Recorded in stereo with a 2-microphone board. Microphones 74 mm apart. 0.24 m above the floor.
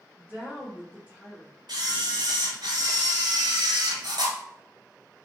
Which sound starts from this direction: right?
A camera shutter, at 1.7 s.